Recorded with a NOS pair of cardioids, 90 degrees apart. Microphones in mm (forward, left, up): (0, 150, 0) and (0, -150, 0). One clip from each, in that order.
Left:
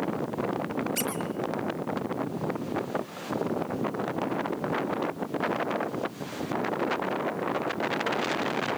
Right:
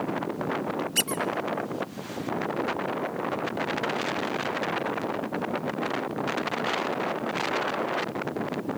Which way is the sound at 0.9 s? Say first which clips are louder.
Right 4 dB; 45° right.